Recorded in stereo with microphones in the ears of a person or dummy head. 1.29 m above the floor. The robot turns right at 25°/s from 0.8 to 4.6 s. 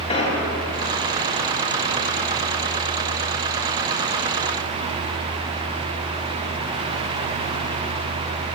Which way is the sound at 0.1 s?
35° left (ahead or behind).